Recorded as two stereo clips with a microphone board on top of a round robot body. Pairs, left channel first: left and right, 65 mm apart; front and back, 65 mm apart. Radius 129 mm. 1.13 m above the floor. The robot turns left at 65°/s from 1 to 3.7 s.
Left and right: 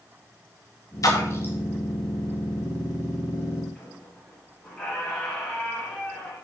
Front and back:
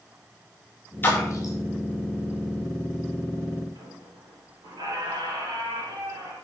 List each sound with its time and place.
1.0 s a splash: 60° left, 2 m; by 1.5 s 25° left, 2 m
3.8 s a squeak: 170° left, 3 m